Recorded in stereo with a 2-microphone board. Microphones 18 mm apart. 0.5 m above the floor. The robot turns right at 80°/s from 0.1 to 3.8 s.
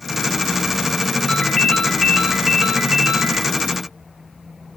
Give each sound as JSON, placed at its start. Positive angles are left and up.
{"t": 1.3, "sound": "a ringtone", "azimuth_deg": 100, "distance_m": 1.5}